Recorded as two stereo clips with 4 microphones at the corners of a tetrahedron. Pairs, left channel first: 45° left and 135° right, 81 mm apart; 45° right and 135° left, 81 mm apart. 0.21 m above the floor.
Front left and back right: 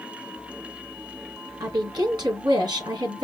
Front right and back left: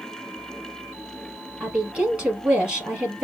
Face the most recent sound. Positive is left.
turn(degrees=-155)